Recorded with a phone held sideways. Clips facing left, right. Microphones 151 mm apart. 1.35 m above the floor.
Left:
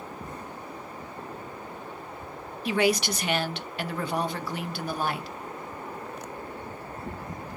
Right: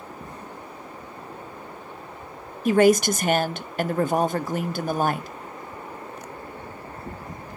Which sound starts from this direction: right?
A woman speaking, at 2.6 s.